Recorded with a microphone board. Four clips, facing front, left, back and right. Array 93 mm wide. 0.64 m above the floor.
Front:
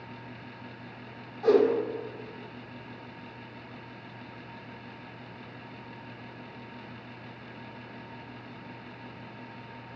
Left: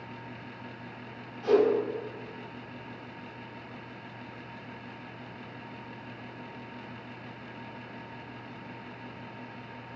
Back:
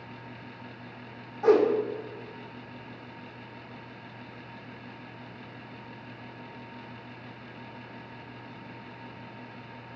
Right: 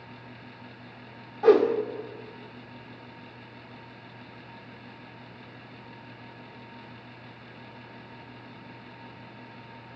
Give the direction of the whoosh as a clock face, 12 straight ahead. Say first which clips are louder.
Right 4 dB, back 1 dB; 4 o'clock.